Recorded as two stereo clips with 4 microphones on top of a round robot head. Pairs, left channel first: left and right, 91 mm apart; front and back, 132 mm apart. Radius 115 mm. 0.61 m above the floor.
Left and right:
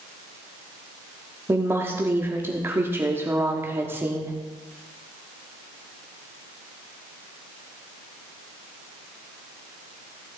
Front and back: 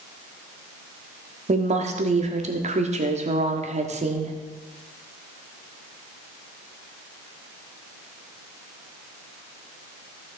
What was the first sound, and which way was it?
A woman speaking, 155° right.